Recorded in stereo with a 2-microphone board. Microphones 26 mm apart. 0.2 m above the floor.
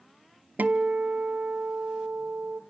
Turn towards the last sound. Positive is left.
turn(degrees=-75)  # may be behind; listen again after turning